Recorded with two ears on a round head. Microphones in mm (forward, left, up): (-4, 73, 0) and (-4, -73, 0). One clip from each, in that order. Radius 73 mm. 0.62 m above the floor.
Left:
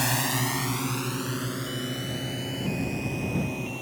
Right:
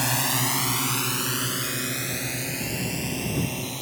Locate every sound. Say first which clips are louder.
0.0 s a drone: right 2 dB; 5° right (ahead or behind); by 3.8 s 65° right (ahead or behind)